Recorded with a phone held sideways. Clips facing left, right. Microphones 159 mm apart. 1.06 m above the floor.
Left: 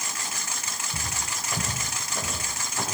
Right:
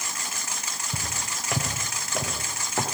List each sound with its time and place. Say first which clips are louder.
0.9 s footsteps: right 1 dB; 70° right (ahead or behind), 8 m; by 2.9 s 75° right (ahead or behind), 9 m